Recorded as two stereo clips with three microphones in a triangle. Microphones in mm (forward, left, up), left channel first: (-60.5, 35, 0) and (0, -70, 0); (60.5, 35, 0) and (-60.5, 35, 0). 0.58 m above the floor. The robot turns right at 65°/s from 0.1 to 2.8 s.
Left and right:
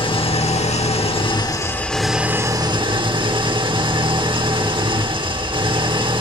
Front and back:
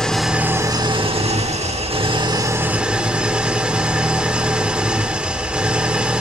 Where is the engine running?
85° left, 1.3 m; by 6.2 s 100° right, 1.3 m.